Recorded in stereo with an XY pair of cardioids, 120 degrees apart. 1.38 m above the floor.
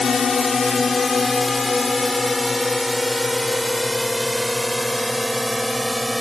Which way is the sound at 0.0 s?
30° left.